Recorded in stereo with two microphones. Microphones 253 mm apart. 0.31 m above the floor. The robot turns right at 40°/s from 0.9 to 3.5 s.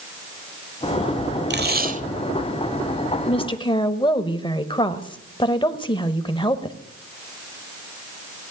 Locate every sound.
1.5 s tape being pulled: 45° right (ahead or behind), 1.0 m; by 2.0 s 30° right (ahead or behind), 1.0 m
3.3 s a woman speaking: 25° left (ahead or behind), 0.9 m; by 6.8 s 20° left (ahead or behind), 0.9 m